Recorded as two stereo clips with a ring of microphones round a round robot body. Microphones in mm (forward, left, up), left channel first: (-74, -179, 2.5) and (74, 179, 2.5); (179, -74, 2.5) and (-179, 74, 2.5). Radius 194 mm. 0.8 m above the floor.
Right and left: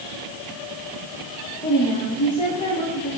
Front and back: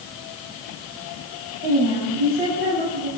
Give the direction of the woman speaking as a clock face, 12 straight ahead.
6 o'clock.